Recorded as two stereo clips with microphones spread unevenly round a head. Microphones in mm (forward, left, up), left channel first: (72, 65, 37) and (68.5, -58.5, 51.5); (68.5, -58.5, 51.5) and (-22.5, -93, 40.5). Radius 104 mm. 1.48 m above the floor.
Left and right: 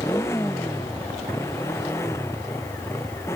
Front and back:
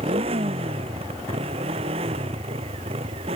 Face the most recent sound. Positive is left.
turn(degrees=165)